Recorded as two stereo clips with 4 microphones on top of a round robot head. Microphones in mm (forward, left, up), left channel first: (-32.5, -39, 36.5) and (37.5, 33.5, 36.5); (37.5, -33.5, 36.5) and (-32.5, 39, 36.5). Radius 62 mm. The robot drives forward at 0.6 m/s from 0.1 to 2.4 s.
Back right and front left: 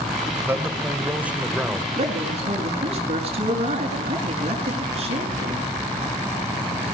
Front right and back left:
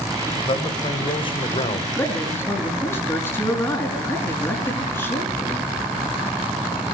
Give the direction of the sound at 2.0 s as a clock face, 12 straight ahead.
11 o'clock.